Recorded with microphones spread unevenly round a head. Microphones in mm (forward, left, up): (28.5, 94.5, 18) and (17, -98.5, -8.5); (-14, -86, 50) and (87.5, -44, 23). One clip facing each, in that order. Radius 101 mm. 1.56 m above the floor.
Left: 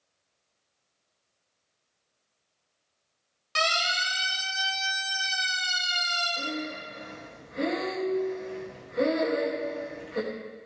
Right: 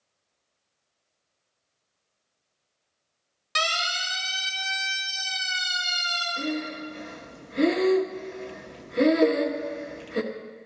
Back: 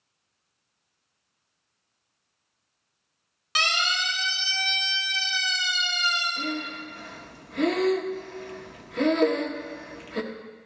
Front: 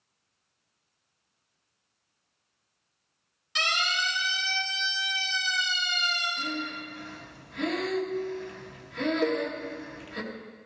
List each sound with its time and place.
3.5 s a siren: 165° right, 5.5 m; by 6.3 s 155° right, 6.5 m
6.4 s breathing: 145° right, 1.2 m
9.2 s a cowbell: 85° right, 0.6 m